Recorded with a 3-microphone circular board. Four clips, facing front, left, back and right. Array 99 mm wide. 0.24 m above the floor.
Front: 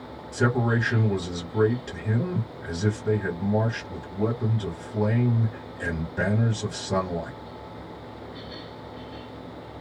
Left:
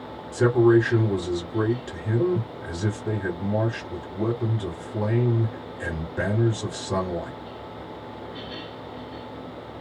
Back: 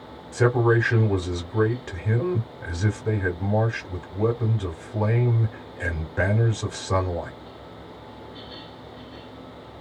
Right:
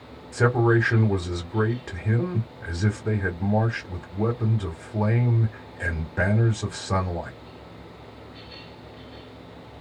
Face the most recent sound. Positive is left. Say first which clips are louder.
# left 3 dB, back 4 dB
turn(degrees=-135)